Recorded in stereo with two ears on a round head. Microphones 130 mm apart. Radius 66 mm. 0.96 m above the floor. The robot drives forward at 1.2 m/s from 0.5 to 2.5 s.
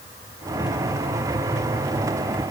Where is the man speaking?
I don't hear a man speaking.